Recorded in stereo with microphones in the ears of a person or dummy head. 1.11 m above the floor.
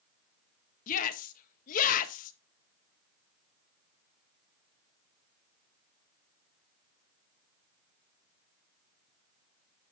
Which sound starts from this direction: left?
A shout, at 0.9 s.